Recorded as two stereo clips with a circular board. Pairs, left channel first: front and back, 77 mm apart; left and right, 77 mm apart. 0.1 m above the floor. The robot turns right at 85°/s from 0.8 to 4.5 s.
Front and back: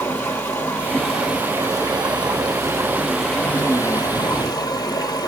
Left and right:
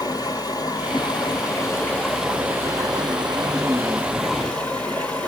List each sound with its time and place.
0.0 s running water: 65° left, 1.2 m; by 5.3 s 20° left, 1.2 m